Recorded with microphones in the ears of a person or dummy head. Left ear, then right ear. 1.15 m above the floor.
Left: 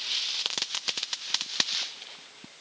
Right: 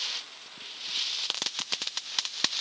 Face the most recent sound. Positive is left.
No sound to turn to.